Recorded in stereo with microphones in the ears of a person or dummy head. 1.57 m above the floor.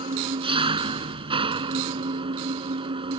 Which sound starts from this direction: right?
An engine running, at 0.0 s.